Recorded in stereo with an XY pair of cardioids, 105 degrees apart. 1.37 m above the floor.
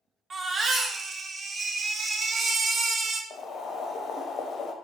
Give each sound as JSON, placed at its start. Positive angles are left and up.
{"t": 0.3, "sound": "a baby crying", "azimuth_deg": -45, "distance_m": 0.8}
{"t": 3.3, "sound": "boiling", "azimuth_deg": 60, "distance_m": 0.7}